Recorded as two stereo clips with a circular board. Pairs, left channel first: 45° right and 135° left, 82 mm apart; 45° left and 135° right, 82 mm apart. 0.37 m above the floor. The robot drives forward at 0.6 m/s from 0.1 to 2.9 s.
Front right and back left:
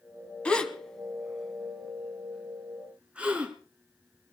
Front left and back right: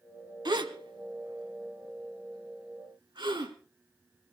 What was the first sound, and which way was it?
A gasp, 120° right.